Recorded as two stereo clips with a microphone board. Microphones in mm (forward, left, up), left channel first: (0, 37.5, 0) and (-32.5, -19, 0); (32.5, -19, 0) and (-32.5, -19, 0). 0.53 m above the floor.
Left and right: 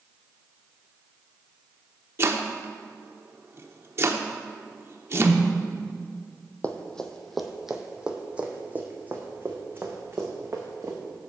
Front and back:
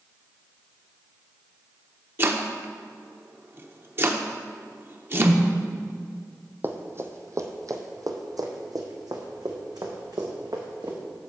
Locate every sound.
2.2 s chopping: 145° right, 0.7 m
5.1 s a whoosh: 155° left, 1.9 m
6.6 s running footsteps: 125° left, 1.0 m; by 11.0 s 170° right, 2.5 m